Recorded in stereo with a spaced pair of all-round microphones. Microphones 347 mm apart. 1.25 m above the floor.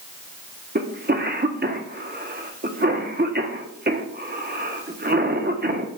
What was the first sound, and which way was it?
A cough, 30° right (ahead or behind).